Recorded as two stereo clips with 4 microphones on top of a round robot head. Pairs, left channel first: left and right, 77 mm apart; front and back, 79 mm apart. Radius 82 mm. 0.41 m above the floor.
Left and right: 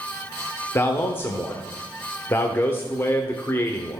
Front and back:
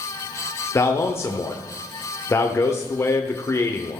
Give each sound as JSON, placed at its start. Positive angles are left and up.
{"t": 0.8, "sound": "a man speaking", "azimuth_deg": 35, "distance_m": 1.0}